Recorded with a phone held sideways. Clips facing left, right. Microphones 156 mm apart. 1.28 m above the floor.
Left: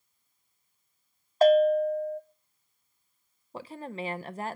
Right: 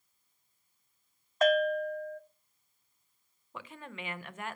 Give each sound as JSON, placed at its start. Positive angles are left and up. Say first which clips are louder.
{"t": 1.4, "sound": "a bell", "louder": "left 7 dB", "side_deg": 30, "distance_m": 0.7}
{"t": 3.5, "sound": "a woman speaking", "louder": "left 8 dB", "side_deg": 35, "distance_m": 0.7}